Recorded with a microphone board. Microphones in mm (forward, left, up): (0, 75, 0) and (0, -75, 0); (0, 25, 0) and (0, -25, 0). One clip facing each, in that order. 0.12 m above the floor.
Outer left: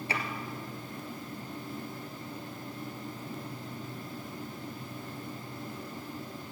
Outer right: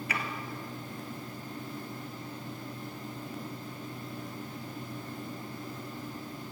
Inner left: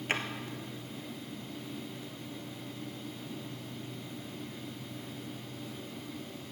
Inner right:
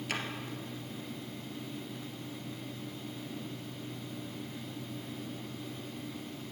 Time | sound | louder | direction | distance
0.1 | a drawer | outer left 1 dB, inner left 4 dB | 30° left (ahead or behind) | 1.5 m